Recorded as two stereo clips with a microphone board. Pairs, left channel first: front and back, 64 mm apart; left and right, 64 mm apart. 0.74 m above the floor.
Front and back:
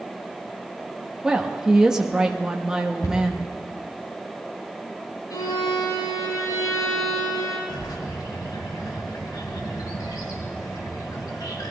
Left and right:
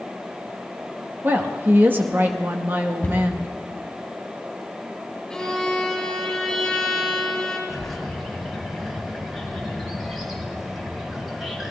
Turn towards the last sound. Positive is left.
turn(degrees=0)